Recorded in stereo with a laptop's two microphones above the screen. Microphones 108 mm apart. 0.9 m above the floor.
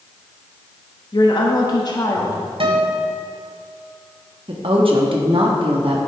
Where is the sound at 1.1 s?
50° left (ahead or behind), 1.4 m; by 2.5 s 35° left (ahead or behind), 1.8 m.